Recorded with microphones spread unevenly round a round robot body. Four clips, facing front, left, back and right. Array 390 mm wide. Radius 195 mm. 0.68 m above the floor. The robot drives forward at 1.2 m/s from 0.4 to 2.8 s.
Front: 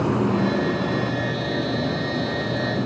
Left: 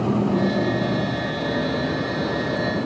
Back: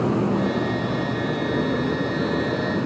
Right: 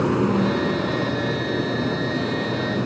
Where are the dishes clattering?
I don't hear dishes clattering.